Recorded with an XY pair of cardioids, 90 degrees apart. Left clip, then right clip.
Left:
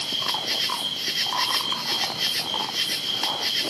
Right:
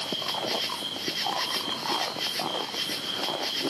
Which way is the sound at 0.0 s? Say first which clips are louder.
Left 4 dB; 45° left.